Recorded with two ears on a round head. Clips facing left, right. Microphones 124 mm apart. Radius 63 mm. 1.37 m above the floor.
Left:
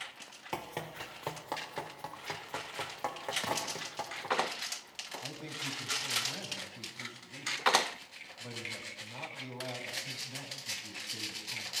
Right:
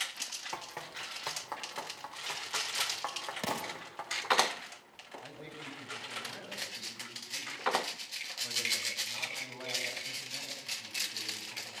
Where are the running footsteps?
30° left (ahead or behind), 1.5 m; by 4.4 s 20° left (ahead or behind), 6 m.